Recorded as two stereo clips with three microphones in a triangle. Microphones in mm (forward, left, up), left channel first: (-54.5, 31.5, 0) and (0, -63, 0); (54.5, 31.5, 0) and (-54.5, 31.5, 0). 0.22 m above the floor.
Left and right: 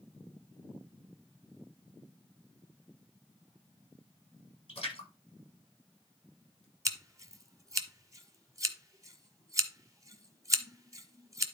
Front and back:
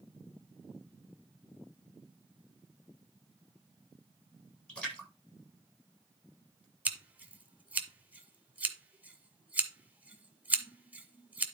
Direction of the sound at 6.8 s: 110° right.